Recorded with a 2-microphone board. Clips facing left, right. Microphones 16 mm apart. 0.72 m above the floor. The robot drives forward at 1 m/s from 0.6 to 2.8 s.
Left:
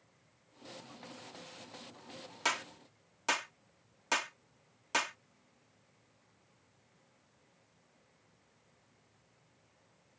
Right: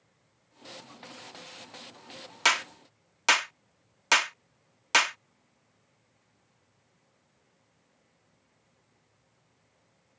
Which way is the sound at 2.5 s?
50° right (ahead or behind).